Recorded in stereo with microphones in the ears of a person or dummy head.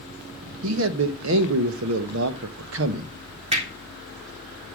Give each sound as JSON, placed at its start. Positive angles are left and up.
{"t": 0.6, "sound": "a man speaking", "side_deg": -70, "distance_m": 1.2}
{"t": 3.5, "sound": "hammering", "side_deg": -35, "distance_m": 3.5}